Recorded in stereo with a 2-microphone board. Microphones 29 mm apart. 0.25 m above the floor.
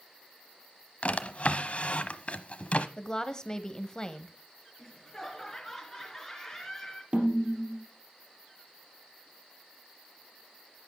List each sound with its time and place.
1.0 s a drawer: 50° left (ahead or behind), 0.8 m
3.0 s a woman speaking: 25° left (ahead or behind), 1.0 m
4.8 s laughter: 5° left (ahead or behind), 4 m
7.1 s a snare drum: 40° right (ahead or behind), 3 m